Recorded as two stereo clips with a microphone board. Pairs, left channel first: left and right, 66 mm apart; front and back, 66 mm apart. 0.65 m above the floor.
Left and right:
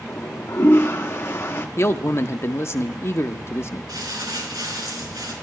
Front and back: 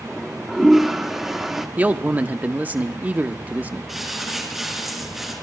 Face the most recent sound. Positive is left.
turn(degrees=-95)